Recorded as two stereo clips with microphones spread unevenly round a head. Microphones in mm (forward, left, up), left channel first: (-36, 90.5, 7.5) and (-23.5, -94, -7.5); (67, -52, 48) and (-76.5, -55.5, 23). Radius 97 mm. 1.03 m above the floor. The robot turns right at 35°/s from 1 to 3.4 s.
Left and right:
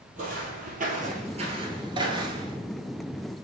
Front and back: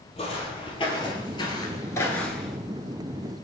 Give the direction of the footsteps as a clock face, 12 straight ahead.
1 o'clock.